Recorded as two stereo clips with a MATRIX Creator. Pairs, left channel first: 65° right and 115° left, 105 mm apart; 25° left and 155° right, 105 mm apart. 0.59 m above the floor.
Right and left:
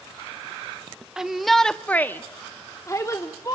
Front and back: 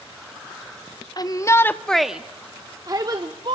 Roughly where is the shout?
Ahead left.